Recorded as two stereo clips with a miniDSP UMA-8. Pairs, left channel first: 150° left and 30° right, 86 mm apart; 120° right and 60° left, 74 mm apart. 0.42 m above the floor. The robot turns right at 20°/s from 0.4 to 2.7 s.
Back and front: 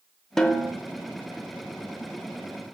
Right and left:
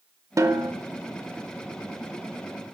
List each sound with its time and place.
0.4 s a snare drum: 65° left, 0.7 m; by 0.7 s 75° left, 0.7 m